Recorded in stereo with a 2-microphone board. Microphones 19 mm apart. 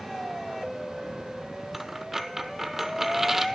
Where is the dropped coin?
10° right (ahead or behind), 0.7 m.